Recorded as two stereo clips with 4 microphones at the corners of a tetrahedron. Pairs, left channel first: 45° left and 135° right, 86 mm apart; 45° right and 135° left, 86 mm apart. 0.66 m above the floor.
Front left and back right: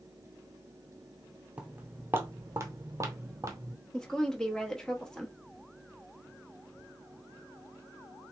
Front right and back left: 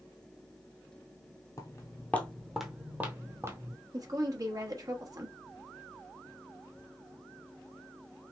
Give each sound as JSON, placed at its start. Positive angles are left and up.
{"t": 1.6, "sound": "footsteps", "azimuth_deg": -70, "distance_m": 0.8}
{"t": 3.9, "sound": "a woman speaking", "azimuth_deg": 125, "distance_m": 1.0}